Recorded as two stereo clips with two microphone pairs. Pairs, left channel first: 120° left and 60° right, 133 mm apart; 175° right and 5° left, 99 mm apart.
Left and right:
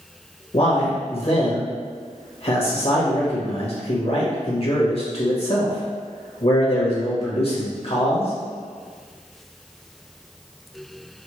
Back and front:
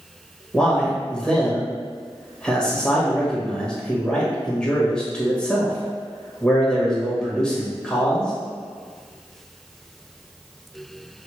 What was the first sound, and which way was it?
A man speaking, 110° left.